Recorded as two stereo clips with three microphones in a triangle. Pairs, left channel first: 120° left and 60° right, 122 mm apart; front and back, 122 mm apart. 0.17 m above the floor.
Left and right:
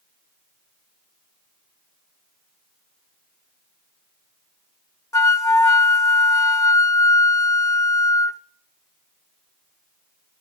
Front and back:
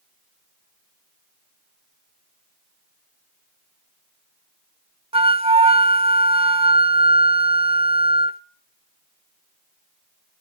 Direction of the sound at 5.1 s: 175° left.